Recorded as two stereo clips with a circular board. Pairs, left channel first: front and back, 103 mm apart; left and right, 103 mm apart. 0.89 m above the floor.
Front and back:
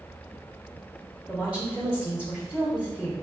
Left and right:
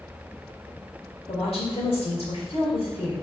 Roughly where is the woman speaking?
Left.